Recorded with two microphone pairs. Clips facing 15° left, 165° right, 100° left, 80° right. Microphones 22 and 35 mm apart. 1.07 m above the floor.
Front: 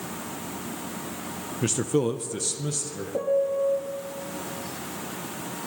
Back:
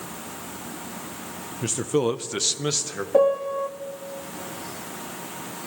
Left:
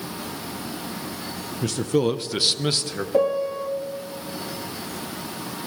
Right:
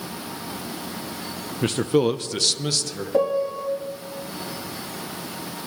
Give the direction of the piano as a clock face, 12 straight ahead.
6 o'clock.